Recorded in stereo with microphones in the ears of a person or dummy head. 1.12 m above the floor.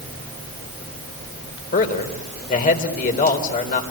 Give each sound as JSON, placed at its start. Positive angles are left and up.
{"t": 1.7, "sound": "a man speaking", "side_deg": 50, "distance_m": 3.5}